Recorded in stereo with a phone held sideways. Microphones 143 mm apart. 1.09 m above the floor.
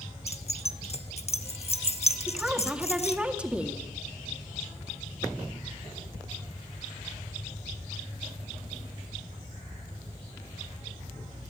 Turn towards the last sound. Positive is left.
turn(degrees=-10)  # may be behind; listen again after turning